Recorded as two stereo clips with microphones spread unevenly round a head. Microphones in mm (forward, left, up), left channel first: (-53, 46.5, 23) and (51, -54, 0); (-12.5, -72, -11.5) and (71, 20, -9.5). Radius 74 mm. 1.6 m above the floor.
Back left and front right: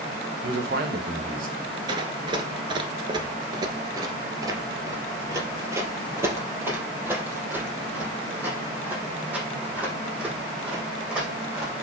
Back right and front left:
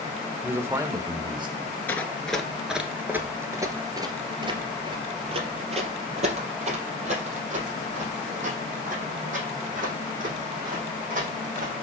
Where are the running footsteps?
80° right, 1.6 m; by 11.7 s 40° left, 6 m.